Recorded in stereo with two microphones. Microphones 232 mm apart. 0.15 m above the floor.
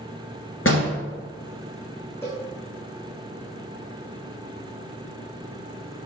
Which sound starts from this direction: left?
A door slam, at 0.7 s.